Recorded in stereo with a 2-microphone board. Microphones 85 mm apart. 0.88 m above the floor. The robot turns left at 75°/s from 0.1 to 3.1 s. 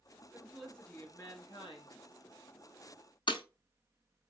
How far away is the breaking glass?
About 0.7 m.